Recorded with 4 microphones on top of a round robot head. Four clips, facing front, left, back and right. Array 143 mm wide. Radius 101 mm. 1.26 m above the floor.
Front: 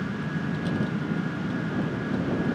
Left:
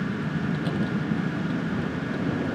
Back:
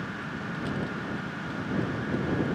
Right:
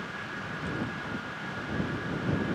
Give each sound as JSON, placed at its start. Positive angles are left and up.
{"t": 0.0, "sound": "a vehicle", "azimuth_deg": 70}